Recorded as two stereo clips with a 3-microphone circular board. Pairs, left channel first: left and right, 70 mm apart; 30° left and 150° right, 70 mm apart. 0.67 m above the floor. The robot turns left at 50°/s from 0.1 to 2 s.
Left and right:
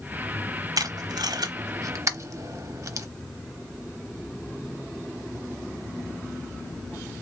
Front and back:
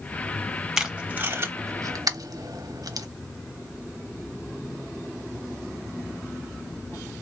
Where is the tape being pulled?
65° right, 0.7 m; by 3.1 s 125° right, 0.7 m.